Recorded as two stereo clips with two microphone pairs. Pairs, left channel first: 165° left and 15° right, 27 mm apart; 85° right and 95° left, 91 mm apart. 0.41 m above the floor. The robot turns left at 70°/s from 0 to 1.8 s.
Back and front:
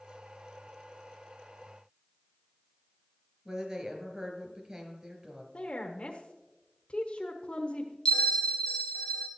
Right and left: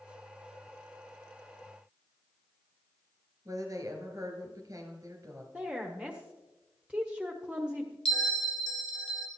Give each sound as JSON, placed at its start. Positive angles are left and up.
{"t": 3.5, "sound": "a woman speaking", "azimuth_deg": 45, "distance_m": 2.5}
{"t": 5.5, "sound": "a woman speaking", "azimuth_deg": 165, "distance_m": 1.1}
{"t": 8.1, "sound": "a bell", "azimuth_deg": -165, "distance_m": 1.4}